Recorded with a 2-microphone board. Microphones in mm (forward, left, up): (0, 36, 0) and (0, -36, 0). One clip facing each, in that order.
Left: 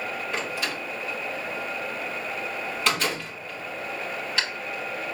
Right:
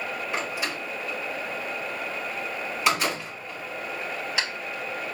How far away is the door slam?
About 4 m.